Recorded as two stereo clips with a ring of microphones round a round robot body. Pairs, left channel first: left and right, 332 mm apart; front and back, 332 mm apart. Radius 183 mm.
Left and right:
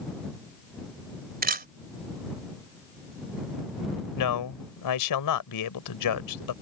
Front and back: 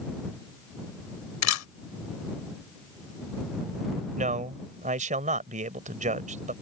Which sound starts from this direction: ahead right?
A camera shutter, at 1.4 s.